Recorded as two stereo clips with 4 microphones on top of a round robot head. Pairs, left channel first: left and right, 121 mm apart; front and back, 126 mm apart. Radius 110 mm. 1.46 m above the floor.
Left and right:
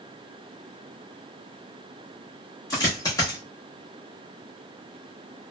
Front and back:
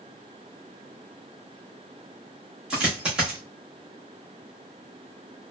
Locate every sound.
2.7 s a dropped coin: 110° left, 0.9 m